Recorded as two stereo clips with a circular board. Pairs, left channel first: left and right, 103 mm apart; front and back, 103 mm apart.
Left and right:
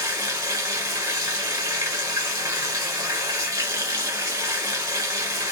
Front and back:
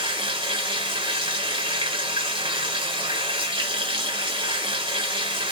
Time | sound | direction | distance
0.0 | running water | 145° right | 1.5 m